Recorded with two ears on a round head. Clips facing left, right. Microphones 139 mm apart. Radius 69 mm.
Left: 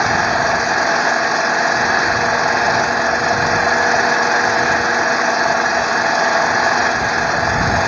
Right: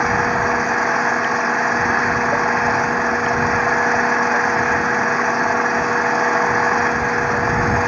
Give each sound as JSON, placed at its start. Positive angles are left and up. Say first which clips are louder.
{"t": 0.0, "sound": "an engine running", "louder": "left 2 dB", "side_deg": 40}